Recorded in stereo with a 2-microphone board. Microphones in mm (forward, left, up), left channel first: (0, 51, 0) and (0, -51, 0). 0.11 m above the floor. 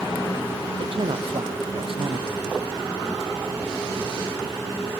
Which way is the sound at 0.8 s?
60° right (ahead or behind).